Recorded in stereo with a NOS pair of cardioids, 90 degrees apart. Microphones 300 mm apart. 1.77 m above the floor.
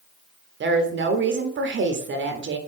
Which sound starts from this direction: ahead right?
A woman speaking, at 0.6 s.